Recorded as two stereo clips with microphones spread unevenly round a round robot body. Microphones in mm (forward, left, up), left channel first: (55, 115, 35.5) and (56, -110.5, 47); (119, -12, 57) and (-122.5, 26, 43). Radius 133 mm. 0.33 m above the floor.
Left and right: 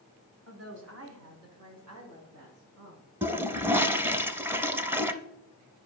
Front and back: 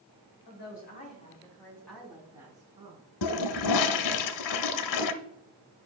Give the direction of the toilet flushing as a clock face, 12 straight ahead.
12 o'clock.